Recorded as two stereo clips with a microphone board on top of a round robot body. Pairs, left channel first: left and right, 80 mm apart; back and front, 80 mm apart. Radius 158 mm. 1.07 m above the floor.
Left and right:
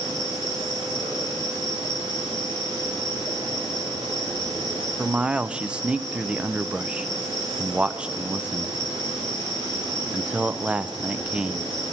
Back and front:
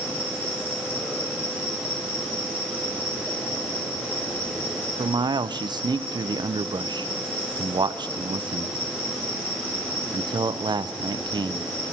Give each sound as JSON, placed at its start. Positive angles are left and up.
{"t": 0.0, "sound": "an insect", "azimuth_deg": -110, "distance_m": 9.5}
{"t": 5.0, "sound": "a man speaking", "azimuth_deg": -15, "distance_m": 0.6}